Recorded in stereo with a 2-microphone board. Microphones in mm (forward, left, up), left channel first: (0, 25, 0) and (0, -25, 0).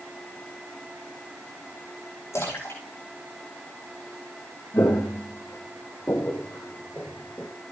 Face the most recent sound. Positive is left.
turn(degrees=35)  # may be behind; listen again after turning